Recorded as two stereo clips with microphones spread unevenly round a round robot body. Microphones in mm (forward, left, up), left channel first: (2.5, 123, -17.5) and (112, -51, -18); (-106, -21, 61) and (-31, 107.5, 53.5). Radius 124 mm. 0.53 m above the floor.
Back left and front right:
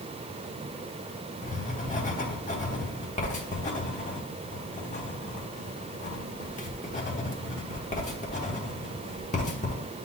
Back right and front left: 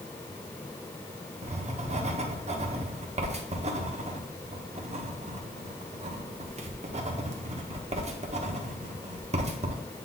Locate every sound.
1.4 s writing: 80° left, 1.2 m